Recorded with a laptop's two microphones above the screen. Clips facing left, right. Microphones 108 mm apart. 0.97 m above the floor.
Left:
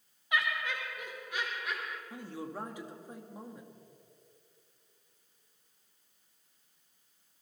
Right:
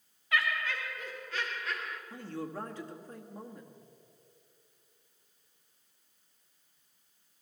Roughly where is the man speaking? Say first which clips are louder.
Right 4 dB; centre.